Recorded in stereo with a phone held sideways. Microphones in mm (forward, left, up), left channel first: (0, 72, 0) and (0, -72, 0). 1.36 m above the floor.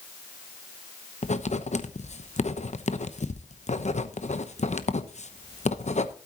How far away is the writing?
About 0.9 m.